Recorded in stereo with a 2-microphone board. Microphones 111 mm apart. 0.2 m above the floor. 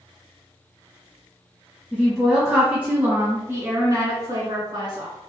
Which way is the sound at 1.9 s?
10° left (ahead or behind).